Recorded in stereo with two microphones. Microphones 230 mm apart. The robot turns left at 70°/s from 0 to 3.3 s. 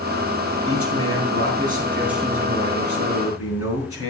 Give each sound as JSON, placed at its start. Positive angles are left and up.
{"t": 0.7, "sound": "a man speaking", "azimuth_deg": -75, "distance_m": 4.0}